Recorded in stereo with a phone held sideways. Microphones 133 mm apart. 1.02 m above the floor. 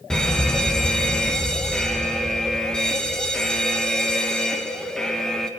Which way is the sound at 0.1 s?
5° left (ahead or behind).